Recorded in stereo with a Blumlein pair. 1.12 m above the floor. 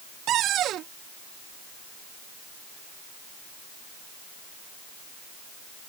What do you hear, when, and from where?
0.3 s a cupboard door: 30° right